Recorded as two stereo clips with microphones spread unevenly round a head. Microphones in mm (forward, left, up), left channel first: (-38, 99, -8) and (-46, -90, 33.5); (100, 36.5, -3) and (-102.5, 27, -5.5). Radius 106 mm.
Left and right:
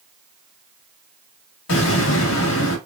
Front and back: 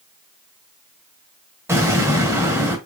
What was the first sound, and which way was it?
An explosion, 105° left.